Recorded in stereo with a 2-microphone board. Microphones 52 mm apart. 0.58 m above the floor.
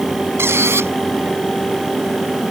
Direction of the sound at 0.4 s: 55° right (ahead or behind).